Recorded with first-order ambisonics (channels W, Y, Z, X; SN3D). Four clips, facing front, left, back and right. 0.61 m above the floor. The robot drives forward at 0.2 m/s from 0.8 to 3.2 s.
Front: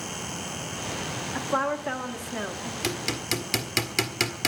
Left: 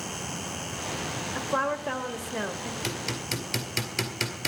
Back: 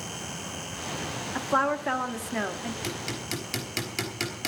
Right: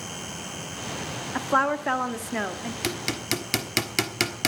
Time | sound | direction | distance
1.4 | a woman speaking | 100° right | 0.9 m
2.8 | hammering | 60° right | 1.4 m